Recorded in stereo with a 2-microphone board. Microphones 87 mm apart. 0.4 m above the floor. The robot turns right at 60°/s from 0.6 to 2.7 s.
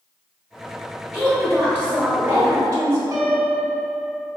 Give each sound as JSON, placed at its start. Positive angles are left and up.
{"t": 1.1, "sound": "a woman speaking", "side_deg": 0, "distance_m": 0.9}
{"t": 3.1, "sound": "a piano", "side_deg": -35, "distance_m": 1.1}